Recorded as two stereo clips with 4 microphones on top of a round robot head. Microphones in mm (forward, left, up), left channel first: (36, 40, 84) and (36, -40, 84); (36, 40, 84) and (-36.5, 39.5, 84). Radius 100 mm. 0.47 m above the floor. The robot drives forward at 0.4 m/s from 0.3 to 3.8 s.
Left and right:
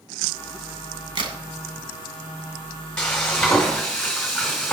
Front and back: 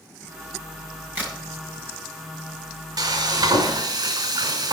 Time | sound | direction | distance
1.1 | a crack | 110° right | 2.5 m
3.0 | frying | 170° left | 3.5 m